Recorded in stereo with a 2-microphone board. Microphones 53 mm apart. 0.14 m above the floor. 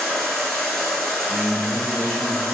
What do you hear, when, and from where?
0.0 s running water: 10° left (ahead or behind), 0.7 m
1.3 s a man speaking: 20° left (ahead or behind), 1.4 m